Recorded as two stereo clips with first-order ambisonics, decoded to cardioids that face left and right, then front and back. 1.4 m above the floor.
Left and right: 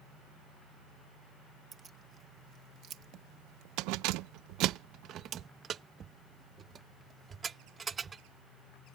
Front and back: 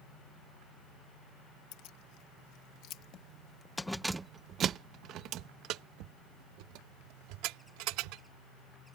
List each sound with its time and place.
1.7 s keys jangling: 20° right; by 8.2 s 165° right